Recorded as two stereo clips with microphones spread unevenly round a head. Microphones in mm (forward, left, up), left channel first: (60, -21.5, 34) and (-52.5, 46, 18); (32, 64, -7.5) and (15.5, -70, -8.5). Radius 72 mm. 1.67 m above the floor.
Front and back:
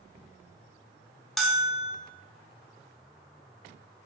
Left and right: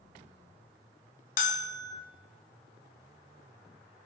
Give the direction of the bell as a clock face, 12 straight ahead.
10 o'clock.